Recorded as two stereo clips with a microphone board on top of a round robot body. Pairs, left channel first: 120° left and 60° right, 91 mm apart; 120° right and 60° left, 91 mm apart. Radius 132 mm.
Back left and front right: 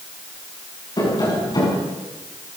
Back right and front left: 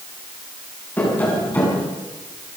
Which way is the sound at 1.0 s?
170° left.